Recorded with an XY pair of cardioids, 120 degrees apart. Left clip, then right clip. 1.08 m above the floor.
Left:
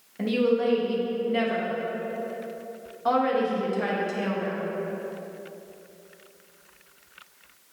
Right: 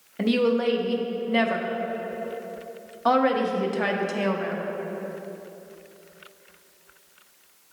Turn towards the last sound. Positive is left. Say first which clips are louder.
# right 1 dB
turn(degrees=-35)